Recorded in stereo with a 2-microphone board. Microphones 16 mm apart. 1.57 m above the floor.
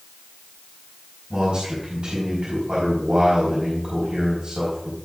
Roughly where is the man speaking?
Right.